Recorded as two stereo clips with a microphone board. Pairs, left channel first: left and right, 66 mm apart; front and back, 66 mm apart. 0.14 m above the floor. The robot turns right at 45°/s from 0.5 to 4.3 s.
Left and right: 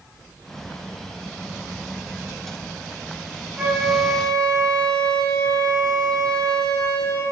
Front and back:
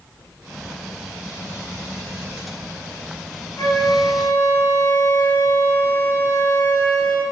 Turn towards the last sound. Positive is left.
turn(degrees=15)